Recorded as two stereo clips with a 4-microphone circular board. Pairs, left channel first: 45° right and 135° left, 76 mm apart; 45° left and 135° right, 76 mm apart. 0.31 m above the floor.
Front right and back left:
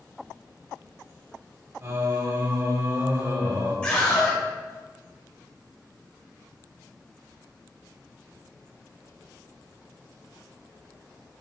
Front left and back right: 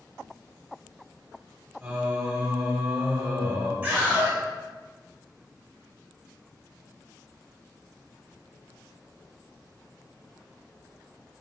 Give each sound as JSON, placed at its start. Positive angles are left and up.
{"t": 1.8, "sound": "singing", "azimuth_deg": 155, "distance_m": 1.1}
{"t": 3.8, "sound": "a scream", "azimuth_deg": -100, "distance_m": 1.0}